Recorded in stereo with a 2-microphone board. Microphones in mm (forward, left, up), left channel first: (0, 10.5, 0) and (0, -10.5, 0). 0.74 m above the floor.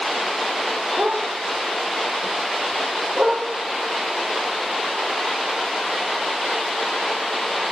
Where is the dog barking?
75° right (ahead or behind), 4 m; by 3.4 s 80° right, 5 m.